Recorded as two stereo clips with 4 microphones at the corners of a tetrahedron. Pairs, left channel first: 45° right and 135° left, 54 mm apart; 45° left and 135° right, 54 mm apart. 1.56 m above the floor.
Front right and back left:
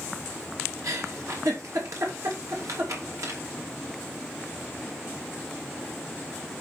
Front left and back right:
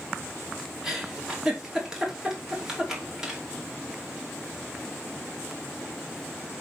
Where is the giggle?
145° left, 3 m.